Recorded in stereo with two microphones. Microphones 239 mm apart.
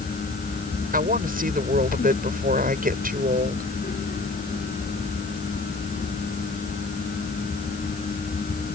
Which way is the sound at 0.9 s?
40° right (ahead or behind).